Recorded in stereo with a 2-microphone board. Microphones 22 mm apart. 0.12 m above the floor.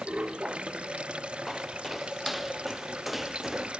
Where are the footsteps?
Centre (ahead or behind); by 3.7 s 15° right (ahead or behind).